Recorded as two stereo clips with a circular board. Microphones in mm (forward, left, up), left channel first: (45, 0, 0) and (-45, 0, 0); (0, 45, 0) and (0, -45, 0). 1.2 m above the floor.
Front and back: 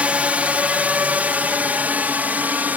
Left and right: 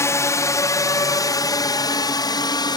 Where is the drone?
115° left; by 2.8 s 110° left.